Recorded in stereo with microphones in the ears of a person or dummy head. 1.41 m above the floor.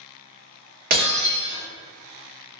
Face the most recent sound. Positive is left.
turn(degrees=-50)  # may be behind; listen again after turning